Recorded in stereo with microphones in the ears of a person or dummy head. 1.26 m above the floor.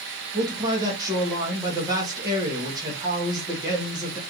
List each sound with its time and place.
0.3 s a man speaking: 20° right (ahead or behind), 0.9 m